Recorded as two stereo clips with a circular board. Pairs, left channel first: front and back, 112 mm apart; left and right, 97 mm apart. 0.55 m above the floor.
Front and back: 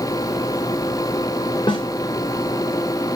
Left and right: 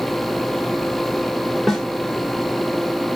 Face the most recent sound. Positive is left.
turn(degrees=0)